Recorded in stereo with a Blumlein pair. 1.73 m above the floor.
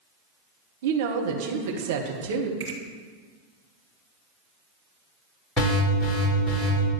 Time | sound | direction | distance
0.8 | a woman speaking | 55° right | 1.5 m
2.6 | a finger snap | 60° right | 4 m
5.6 | an alarm | 15° left | 5 m